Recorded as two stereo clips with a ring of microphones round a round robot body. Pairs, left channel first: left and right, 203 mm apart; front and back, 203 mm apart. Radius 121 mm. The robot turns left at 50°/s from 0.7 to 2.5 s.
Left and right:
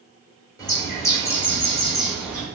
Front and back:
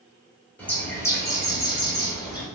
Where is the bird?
65° left, 1.4 m; by 2.4 s 20° right, 1.4 m.